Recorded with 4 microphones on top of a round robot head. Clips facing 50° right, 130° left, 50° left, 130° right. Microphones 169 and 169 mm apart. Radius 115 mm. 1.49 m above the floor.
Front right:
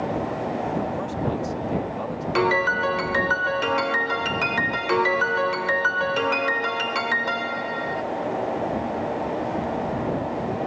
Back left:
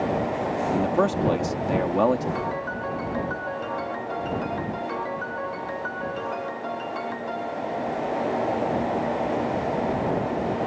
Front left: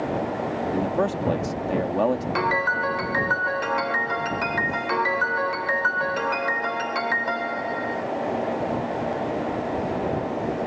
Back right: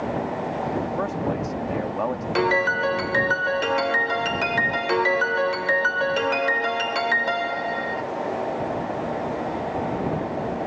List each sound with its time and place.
0.7 s a man speaking: 105° left
2.4 s a piano: 70° right